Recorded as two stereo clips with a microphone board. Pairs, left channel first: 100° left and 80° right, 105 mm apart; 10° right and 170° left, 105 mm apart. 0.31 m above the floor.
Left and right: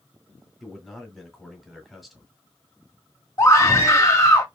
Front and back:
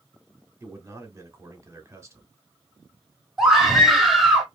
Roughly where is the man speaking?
Behind.